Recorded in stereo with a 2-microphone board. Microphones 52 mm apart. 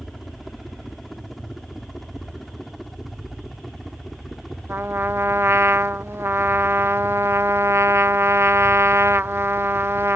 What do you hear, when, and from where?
0.0 s a helicopter: centre (ahead or behind)
4.7 s a trumpet: 55° right (ahead or behind)